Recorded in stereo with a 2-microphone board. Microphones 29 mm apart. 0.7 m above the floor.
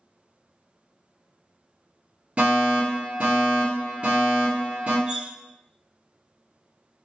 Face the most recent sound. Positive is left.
turn(degrees=-35)  # may be behind; listen again after turning